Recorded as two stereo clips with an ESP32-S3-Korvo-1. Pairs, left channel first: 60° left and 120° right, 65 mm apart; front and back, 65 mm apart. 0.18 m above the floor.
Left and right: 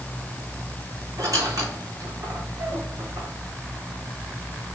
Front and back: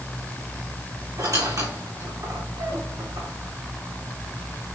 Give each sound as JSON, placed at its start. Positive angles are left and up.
{"t": 1.2, "sound": "a squeak", "azimuth_deg": -155, "distance_m": 3.5}